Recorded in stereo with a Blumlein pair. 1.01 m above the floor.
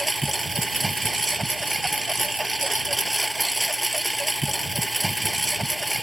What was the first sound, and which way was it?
A lawn mower, 5° right.